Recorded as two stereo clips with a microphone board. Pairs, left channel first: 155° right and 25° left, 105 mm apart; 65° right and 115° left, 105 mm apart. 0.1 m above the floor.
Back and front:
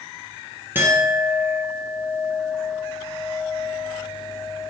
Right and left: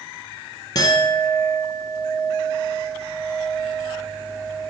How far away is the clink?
About 1.1 m.